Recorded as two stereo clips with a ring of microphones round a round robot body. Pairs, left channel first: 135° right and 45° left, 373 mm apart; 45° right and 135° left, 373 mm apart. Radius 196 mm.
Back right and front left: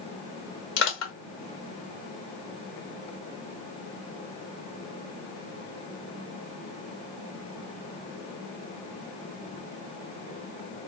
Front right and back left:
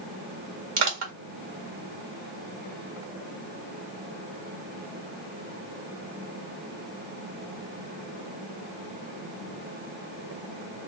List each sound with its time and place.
0.8 s crushing: 175° left, 1.9 m